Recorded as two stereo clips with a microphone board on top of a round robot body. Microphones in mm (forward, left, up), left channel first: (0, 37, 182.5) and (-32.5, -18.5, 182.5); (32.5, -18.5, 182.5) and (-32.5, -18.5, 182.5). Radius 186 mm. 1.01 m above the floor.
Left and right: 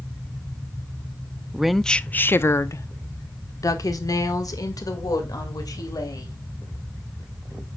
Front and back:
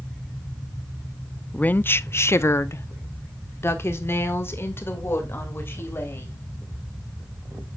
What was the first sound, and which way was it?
A woman speaking, 50° right.